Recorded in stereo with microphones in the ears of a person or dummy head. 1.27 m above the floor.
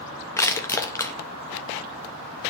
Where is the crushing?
15° left (ahead or behind), 0.8 m.